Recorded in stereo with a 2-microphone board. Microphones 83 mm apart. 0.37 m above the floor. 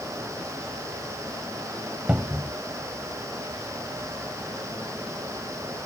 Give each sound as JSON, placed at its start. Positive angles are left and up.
{"t": 2.1, "sound": "a cupboard door", "side_deg": -15}